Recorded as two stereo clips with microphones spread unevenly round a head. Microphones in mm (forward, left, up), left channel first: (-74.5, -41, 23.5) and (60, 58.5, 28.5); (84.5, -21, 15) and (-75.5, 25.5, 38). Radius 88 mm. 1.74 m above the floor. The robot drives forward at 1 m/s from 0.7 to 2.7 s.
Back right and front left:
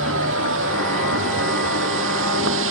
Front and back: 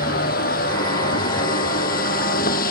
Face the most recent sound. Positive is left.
turn(degrees=25)